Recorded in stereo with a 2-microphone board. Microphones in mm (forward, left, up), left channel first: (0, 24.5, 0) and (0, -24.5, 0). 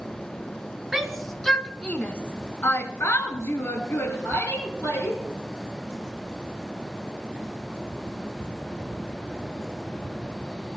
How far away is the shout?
About 2.0 m.